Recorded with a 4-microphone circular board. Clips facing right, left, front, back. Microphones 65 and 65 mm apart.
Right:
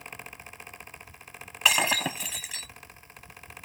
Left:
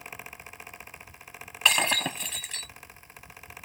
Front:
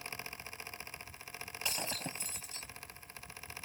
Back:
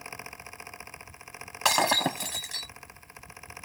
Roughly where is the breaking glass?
Behind.